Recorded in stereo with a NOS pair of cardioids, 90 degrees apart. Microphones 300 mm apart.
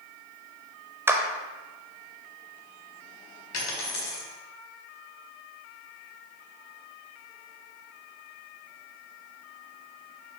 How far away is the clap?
About 0.5 m.